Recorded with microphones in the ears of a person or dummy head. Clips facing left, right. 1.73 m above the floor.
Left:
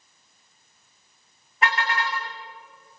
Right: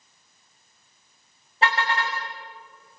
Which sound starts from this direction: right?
A car horn, at 1.6 s.